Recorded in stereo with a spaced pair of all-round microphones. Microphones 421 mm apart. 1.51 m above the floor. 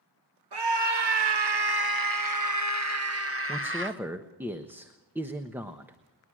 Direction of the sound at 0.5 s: 70° right (ahead or behind).